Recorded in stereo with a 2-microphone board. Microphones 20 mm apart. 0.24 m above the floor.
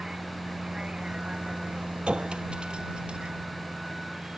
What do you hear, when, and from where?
0.0 s a vehicle: 30° right (ahead or behind); by 4.4 s 45° right (ahead or behind)
2.1 s a clink: 60° right (ahead or behind)